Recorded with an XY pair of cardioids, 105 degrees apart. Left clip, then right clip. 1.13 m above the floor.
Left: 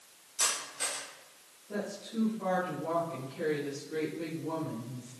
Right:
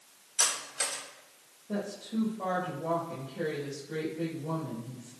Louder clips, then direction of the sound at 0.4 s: Right 2 dB; 65° right.